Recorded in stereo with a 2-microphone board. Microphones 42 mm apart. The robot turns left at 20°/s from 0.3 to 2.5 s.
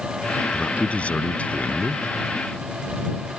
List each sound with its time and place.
0.5 s a man speaking: 115° left; by 2.1 s 85° left